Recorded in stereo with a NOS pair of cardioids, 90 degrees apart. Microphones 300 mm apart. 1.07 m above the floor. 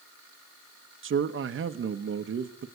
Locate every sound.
1.0 s a man speaking: 45° right, 1.1 m